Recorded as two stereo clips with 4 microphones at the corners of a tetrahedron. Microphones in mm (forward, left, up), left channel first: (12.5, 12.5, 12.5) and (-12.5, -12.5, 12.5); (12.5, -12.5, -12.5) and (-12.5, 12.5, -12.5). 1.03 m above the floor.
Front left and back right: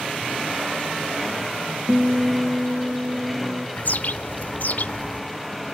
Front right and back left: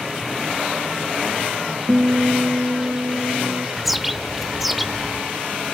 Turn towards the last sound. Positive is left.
turn(degrees=45)